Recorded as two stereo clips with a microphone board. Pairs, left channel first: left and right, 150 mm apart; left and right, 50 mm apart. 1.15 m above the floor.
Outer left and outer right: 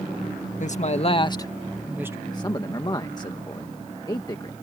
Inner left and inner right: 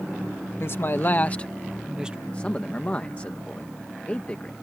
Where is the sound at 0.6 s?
55° left (ahead or behind); by 2.2 s 20° right (ahead or behind).